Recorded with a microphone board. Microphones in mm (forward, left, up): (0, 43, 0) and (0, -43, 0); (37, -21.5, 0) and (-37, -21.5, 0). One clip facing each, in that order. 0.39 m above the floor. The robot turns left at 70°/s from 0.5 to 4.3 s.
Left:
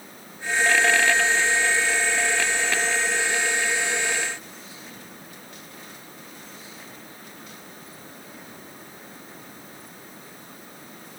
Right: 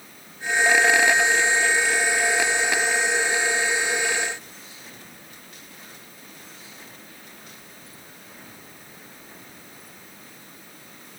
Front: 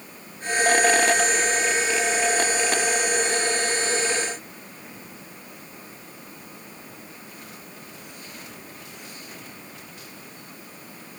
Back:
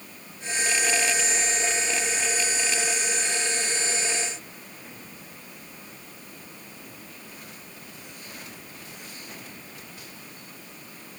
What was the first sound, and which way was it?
Only background noise.